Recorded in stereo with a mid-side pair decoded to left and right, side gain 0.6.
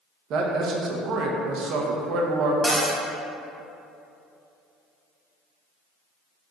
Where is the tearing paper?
I don't hear tearing paper.